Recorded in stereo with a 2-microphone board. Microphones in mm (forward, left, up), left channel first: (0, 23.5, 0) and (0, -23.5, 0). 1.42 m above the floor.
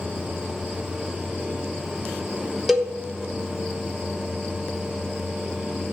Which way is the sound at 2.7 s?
5° right (ahead or behind).